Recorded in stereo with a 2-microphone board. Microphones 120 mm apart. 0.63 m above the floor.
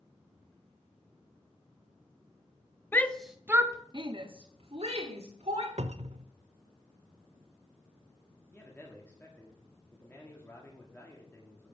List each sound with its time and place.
2.9 s a shout: 20° left (ahead or behind), 0.6 m; by 5.7 s 70° right (ahead or behind), 1.6 m
5.8 s a cupboard door: 70° right (ahead or behind), 0.5 m
8.5 s a man speaking: 20° left (ahead or behind), 1.5 m